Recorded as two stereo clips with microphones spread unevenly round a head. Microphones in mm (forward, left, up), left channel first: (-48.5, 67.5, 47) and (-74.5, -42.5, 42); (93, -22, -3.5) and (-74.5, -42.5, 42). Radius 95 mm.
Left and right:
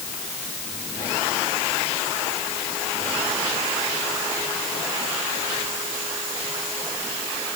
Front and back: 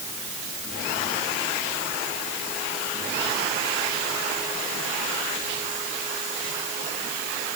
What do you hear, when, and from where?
Only background noise.